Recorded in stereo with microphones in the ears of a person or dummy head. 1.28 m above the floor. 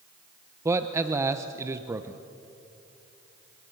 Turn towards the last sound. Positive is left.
turn(degrees=-15)  # may be behind; listen again after turning